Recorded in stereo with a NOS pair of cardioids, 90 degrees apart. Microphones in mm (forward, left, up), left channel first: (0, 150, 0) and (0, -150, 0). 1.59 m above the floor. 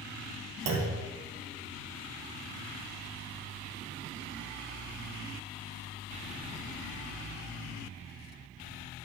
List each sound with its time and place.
0.7 s a clunk: 60° right, 1.4 m